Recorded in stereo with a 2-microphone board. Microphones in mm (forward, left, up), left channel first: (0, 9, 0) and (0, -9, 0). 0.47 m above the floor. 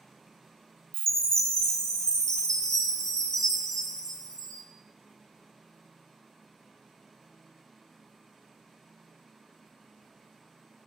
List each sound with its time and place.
0.9 s a chime: 40° left (ahead or behind), 0.5 m